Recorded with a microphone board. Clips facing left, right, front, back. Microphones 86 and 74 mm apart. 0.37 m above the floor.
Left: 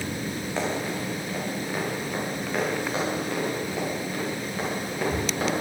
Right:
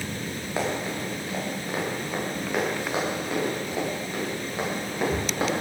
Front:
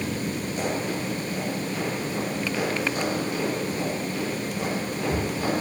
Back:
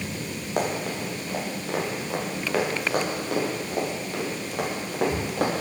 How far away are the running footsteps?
About 7 m.